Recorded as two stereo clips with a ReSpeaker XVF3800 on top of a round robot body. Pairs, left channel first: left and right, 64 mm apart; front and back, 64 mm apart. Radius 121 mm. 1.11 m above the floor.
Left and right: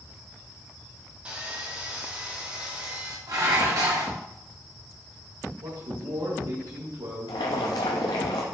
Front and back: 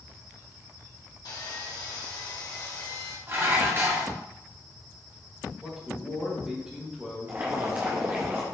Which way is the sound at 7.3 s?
110° left.